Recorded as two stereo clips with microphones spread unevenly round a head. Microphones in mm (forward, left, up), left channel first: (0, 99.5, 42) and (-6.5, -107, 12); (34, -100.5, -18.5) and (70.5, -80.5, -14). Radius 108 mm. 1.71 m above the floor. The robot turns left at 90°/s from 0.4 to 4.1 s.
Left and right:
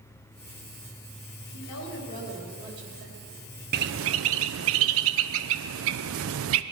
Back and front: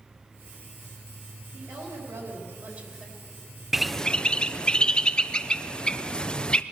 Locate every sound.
1.5 s a woman speaking: 90° left, 4 m; by 3.4 s 80° right, 4 m
3.7 s a bird: 45° right, 0.7 m; by 6.6 s 80° right, 0.7 m